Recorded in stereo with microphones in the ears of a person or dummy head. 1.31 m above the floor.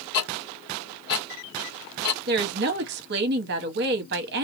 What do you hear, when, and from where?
0.1 s ticking: 50° left (ahead or behind), 1.3 m
2.3 s a woman speaking: 60° right (ahead or behind), 0.8 m